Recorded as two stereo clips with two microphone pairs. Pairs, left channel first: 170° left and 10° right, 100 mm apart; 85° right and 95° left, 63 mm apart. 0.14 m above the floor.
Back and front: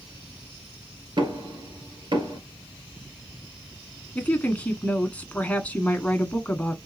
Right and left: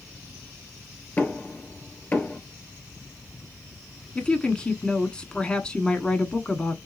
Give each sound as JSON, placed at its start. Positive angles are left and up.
{"t": 1.2, "sound": "knocking", "azimuth_deg": -30, "distance_m": 2.0}
{"t": 4.2, "sound": "a woman speaking", "azimuth_deg": -135, "distance_m": 1.2}